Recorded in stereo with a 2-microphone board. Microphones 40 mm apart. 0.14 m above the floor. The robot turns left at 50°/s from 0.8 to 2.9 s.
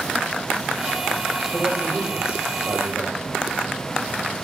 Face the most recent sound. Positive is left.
turn(degrees=-55)